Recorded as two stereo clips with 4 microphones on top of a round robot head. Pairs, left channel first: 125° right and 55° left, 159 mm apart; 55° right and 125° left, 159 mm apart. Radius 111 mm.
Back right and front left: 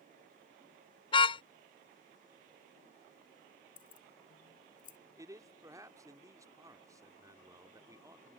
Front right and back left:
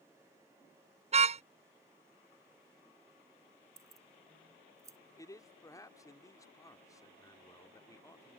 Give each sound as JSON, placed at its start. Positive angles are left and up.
{"t": 1.1, "sound": "a car horn", "azimuth_deg": 175}
{"t": 3.8, "sound": "keys jangling", "azimuth_deg": -165}
{"t": 5.2, "sound": "a man speaking", "azimuth_deg": 0}